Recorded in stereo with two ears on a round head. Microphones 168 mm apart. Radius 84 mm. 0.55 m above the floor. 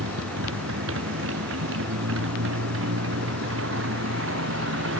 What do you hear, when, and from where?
0.0 s a motorcycle: 75° right (ahead or behind)